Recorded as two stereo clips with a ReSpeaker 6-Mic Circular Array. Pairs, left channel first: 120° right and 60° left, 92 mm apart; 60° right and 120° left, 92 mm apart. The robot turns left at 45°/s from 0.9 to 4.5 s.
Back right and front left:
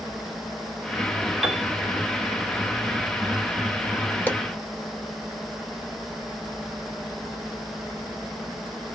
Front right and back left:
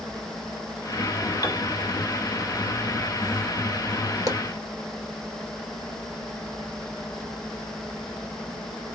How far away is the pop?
About 1.1 m.